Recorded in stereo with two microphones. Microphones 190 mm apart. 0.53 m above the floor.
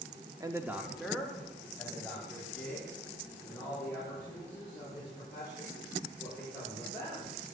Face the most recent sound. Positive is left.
turn(degrees=10)  # may be behind; listen again after turning